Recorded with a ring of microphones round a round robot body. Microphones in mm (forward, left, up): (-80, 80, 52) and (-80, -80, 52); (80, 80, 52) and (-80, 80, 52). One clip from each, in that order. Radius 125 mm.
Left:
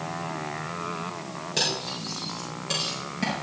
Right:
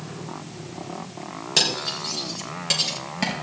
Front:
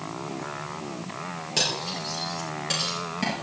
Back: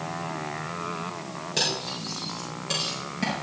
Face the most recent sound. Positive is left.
turn(degrees=-80)